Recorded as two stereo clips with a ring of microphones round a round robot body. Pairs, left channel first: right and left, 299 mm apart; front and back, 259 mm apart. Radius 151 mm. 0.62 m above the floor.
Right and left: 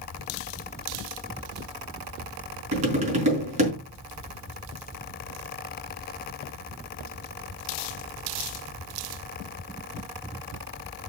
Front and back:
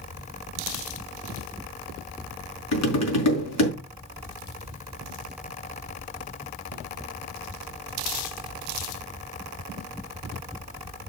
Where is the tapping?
20° left, 4.5 m.